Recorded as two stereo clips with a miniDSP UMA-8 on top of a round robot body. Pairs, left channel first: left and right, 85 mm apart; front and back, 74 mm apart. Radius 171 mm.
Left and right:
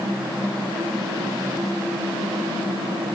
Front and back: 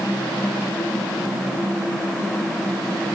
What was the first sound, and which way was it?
Only background noise.